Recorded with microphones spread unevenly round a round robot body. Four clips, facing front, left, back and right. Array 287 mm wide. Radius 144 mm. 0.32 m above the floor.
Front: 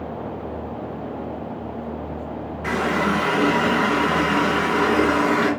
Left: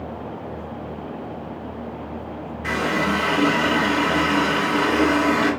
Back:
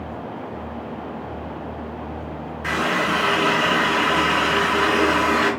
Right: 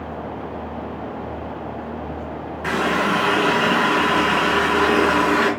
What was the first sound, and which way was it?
A running tap, 65° right.